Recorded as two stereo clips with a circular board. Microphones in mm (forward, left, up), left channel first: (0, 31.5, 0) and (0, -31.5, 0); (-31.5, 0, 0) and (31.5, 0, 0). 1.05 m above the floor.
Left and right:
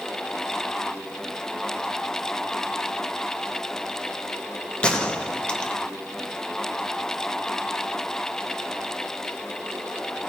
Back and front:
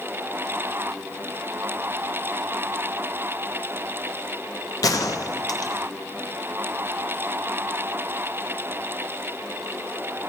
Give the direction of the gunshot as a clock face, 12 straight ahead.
7 o'clock.